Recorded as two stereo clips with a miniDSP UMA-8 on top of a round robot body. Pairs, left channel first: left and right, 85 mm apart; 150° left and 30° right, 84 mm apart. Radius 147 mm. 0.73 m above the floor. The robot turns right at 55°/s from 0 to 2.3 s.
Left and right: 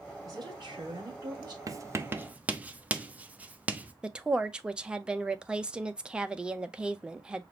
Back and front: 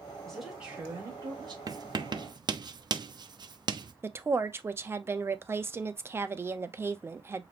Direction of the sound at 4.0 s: 25° right.